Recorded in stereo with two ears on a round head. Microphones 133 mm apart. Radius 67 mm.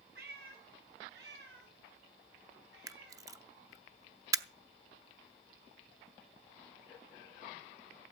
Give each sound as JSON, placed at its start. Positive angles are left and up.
{"t": 0.1, "sound": "a cat meowing", "side_deg": -70, "distance_m": 4.5}
{"t": 2.9, "sound": "a camera shutter", "side_deg": -20, "distance_m": 0.7}